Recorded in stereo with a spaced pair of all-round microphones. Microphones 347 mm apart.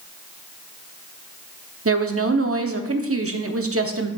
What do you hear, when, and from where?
1.9 s a woman speaking: 40° right (ahead or behind), 0.6 m